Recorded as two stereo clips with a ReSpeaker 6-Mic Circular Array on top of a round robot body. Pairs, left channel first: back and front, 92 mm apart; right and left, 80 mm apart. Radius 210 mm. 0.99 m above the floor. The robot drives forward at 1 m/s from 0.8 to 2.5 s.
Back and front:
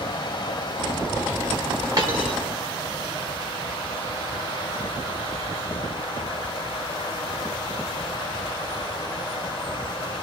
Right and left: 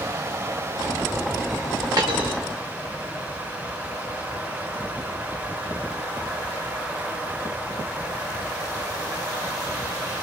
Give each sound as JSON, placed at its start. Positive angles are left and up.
{"t": 0.0, "sound": "running water", "azimuth_deg": 145, "distance_m": 2.0}
{"t": 2.0, "sound": "a dropped coin", "azimuth_deg": 45, "distance_m": 0.8}